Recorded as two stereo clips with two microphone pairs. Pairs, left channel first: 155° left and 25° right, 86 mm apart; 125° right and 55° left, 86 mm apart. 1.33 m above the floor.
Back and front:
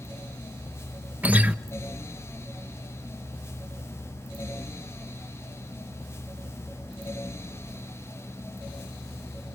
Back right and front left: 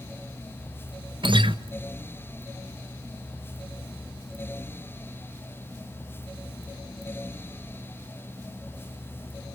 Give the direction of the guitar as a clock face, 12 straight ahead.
10 o'clock.